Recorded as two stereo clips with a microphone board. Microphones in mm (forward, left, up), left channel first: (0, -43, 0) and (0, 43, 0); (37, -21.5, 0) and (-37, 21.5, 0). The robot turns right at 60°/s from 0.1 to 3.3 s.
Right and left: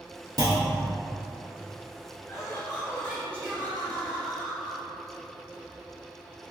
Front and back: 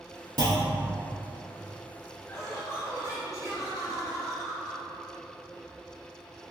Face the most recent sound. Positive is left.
turn(degrees=-25)